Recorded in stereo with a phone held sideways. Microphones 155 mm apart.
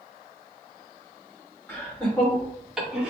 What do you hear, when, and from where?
1.7 s laughter: 10° left (ahead or behind), 2.5 m; by 3.1 s 5° right (ahead or behind), 2.0 m